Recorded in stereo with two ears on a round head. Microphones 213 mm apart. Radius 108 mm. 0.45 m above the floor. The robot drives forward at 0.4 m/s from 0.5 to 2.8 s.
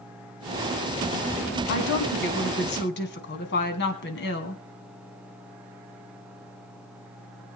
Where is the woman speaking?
55° left (ahead or behind), 3 m; by 4.6 s 50° left (ahead or behind), 3.5 m.